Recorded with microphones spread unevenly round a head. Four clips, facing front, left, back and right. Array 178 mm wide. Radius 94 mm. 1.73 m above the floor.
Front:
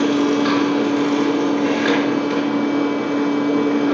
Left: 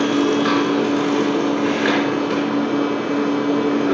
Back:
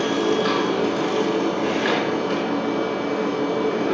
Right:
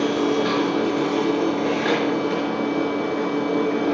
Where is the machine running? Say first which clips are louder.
Left 3 dB, front 4 dB; 85° left, 5.5 m.